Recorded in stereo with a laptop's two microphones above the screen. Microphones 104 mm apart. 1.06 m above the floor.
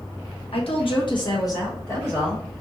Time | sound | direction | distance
0.5 | a woman speaking | 75° left (ahead or behind) | 1.1 m